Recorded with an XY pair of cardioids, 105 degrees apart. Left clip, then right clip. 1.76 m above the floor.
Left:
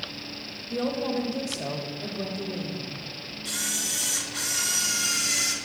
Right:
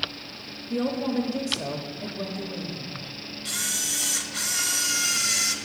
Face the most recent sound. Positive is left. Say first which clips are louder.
# right 1 dB
turn(degrees=-25)